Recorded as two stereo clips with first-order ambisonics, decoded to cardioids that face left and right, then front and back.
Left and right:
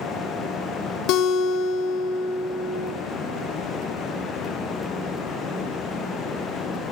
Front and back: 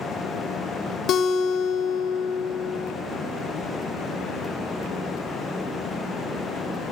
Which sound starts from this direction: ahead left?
A guitar, at 1.1 s.